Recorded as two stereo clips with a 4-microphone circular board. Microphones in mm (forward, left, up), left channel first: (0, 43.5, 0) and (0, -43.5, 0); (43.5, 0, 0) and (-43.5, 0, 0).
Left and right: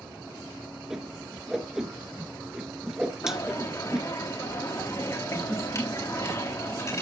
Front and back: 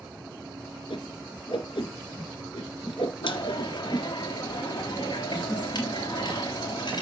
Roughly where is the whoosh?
Ahead.